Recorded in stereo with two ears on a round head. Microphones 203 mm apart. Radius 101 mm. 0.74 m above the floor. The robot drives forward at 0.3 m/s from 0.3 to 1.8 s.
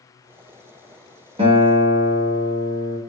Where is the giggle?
No giggle in this recording.